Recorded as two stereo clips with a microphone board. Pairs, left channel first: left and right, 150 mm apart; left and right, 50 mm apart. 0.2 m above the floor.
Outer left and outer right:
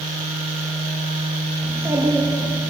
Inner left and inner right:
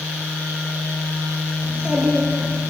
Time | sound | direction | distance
1.6 | a child speaking | 15° right (ahead or behind) | 3.5 m